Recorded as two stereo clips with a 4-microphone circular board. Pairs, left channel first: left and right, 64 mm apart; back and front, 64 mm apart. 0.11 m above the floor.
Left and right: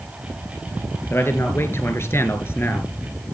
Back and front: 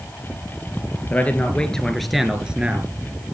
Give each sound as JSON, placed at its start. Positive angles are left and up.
{"t": 1.1, "sound": "a man speaking", "azimuth_deg": 125, "distance_m": 2.0}